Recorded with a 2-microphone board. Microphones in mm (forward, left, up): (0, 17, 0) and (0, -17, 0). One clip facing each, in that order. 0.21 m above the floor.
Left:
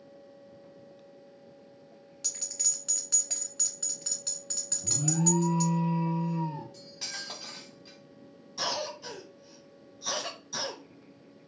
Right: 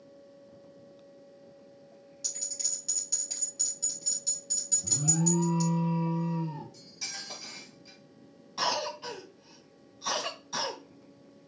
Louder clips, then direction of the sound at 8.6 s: Right 3 dB; 40° right (ahead or behind).